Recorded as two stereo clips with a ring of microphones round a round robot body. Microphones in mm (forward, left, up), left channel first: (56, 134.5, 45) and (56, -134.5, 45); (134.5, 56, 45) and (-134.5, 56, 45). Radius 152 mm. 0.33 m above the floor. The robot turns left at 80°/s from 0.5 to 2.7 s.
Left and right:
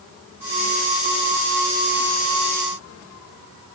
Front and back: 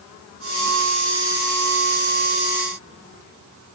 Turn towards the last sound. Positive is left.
No sound to turn to.